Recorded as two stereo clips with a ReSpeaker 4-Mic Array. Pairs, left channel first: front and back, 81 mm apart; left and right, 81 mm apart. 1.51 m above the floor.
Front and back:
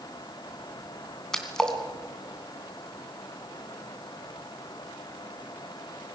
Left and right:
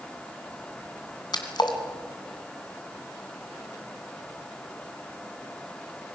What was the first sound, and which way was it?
A splash, 80° left.